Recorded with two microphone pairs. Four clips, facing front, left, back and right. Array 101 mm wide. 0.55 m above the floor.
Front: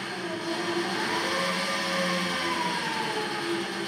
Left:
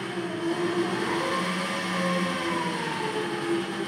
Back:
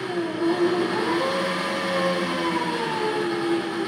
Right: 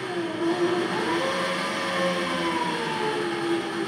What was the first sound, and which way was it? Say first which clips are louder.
An engine running: right 3 dB, back 9 dB; 160° right.